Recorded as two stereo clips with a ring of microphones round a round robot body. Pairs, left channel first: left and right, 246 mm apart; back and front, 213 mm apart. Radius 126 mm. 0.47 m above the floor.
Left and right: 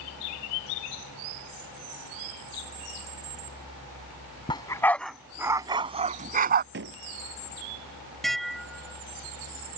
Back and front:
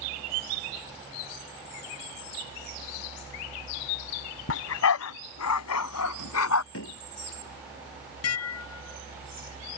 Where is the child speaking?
No child speaking in this recording.